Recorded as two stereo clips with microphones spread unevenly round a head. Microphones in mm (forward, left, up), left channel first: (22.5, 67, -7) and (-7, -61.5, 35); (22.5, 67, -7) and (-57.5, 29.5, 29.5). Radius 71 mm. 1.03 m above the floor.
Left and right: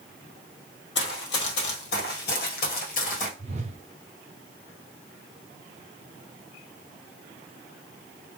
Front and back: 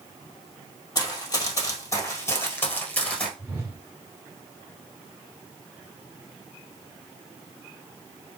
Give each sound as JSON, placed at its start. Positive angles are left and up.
{"t": 0.9, "sound": "running footsteps", "azimuth_deg": 75, "distance_m": 2.0}
{"t": 3.4, "sound": "a whoosh", "azimuth_deg": -100, "distance_m": 1.0}